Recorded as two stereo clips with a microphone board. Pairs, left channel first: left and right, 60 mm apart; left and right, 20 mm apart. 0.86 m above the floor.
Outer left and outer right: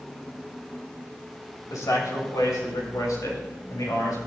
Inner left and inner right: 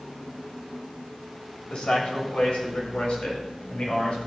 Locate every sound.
1.7 s a man speaking: 75° left (ahead or behind), 4.5 m; by 4.3 s 85° left, 6 m